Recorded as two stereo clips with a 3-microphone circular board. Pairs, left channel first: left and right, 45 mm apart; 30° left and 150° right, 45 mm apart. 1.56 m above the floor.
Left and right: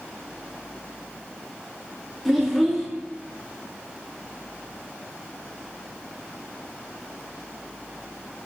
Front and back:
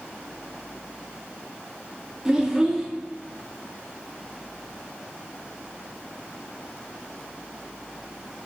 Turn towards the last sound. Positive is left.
turn(degrees=180)